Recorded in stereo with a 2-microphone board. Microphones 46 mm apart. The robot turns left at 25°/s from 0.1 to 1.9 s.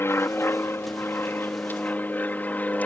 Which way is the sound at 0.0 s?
65° left (ahead or behind).